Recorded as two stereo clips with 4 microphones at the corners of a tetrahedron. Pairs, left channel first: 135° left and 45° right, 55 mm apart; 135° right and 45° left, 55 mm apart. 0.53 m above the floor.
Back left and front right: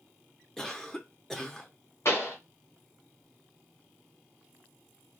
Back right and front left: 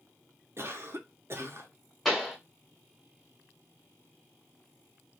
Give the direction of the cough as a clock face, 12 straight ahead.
10 o'clock.